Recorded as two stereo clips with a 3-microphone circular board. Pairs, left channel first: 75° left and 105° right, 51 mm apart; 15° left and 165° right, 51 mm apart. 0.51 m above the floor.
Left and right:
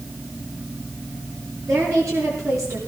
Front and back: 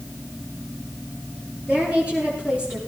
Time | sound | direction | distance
1.6 | a woman speaking | 105° right | 8.5 m